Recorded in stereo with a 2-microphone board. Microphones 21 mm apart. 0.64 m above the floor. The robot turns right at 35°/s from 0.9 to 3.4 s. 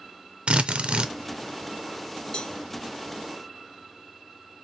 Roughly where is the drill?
Right.